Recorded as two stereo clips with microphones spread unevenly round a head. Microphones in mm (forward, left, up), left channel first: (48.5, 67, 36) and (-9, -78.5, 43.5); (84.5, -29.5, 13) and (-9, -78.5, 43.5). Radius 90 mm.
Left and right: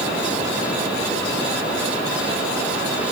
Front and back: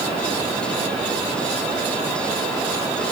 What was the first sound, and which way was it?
Only background noise.